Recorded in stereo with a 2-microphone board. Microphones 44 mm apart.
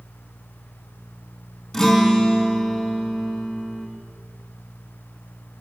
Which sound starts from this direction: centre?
A guitar, at 1.7 s.